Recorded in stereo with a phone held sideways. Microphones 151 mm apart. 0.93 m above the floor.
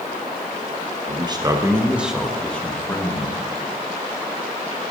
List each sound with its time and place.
1.1 s a man speaking: 35° right (ahead or behind), 1.1 m; by 3.4 s 20° left (ahead or behind), 1.8 m